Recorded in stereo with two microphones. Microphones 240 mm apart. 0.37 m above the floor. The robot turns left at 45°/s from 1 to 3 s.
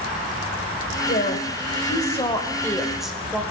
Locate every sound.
1.1 s a woman speaking: 85° left, 1.4 m; by 3.4 s straight ahead, 1.4 m